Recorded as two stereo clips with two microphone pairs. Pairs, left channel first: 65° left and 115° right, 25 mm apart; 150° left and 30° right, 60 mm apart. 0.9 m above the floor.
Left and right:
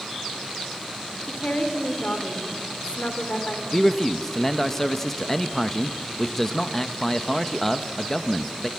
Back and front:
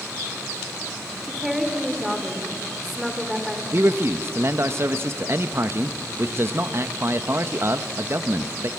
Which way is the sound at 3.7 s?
Straight ahead.